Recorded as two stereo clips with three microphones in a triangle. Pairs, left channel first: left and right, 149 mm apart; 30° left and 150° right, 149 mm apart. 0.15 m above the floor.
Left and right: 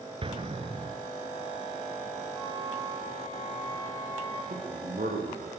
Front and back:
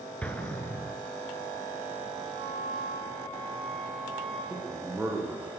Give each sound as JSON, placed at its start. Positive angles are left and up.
{"t": 0.2, "sound": "an explosion", "azimuth_deg": -50, "distance_m": 1.7}
{"t": 2.4, "sound": "a flute", "azimuth_deg": -155, "distance_m": 5.5}
{"t": 4.5, "sound": "a man speaking", "azimuth_deg": -70, "distance_m": 5.5}